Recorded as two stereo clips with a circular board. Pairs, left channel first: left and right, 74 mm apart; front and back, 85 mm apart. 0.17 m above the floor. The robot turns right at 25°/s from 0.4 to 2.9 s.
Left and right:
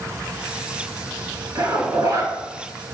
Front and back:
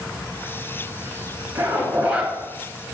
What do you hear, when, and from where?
1.6 s a zipper: 130° right, 1.0 m; by 2.3 s 110° right, 1.0 m